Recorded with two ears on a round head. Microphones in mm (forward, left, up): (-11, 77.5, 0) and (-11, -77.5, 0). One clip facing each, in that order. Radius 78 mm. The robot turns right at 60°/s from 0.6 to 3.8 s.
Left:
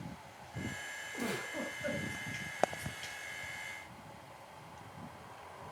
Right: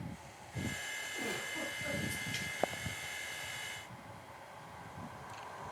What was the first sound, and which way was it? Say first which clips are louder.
A giggle: left 3 dB; 65° left.